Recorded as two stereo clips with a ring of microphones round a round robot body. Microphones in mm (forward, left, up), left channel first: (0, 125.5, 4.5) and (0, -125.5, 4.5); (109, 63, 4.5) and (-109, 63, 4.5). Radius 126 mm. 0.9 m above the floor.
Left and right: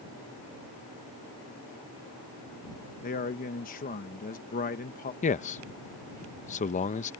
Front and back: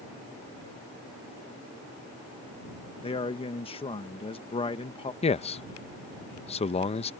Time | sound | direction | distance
3.0 | a man speaking | 50° left | ?
5.2 | a man speaking | 45° left | ?